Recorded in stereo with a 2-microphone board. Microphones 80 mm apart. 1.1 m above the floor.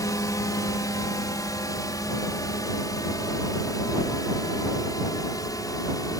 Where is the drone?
50° left (ahead or behind).